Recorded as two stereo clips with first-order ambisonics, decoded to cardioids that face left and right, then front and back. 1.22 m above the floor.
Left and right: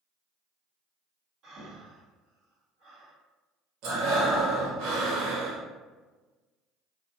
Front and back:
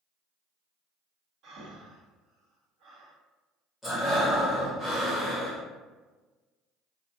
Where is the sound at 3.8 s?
85° right, 1.0 m.